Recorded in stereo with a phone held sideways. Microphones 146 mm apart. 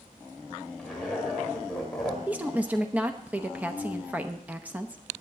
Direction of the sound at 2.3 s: 10° right (ahead or behind).